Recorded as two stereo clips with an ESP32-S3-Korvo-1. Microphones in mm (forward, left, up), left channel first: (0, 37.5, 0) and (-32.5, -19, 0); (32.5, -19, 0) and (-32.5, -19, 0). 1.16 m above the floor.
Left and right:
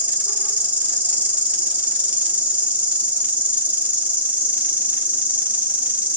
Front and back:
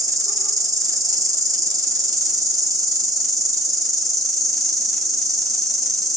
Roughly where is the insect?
Behind.